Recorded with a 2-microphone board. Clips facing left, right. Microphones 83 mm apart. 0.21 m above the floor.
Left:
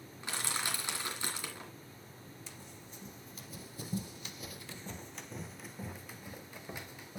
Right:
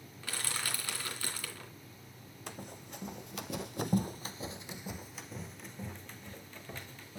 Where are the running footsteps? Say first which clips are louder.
Right 6 dB; 55° right (ahead or behind), 0.9 m; by 7.2 s 15° left (ahead or behind), 1.8 m.